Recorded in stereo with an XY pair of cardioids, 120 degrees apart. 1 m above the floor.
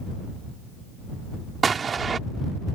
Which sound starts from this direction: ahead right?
An explosion, at 1.6 s.